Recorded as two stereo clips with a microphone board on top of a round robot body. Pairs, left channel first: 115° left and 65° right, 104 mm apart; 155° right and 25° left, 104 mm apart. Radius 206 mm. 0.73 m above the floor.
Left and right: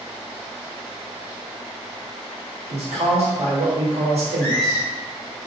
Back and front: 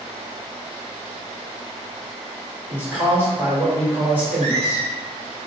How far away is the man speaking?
About 3 m.